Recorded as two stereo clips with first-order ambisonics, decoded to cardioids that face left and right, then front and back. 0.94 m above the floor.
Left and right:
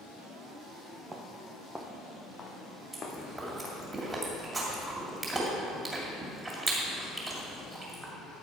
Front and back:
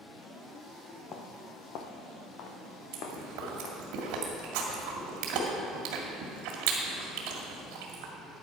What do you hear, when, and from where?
1.1 s footsteps: 25° right, 1.1 m; by 3.8 s 25° left, 2.5 m
2.9 s chewing: 165° right, 2.5 m